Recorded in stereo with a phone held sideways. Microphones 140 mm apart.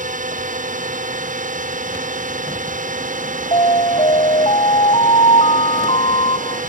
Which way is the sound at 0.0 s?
70° right (ahead or behind).